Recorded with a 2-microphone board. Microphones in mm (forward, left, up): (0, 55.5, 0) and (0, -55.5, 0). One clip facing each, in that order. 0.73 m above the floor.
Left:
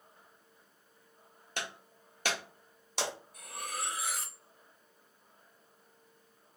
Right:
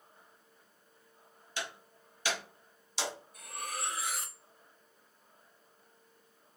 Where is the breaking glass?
60° left (ahead or behind), 1.1 m.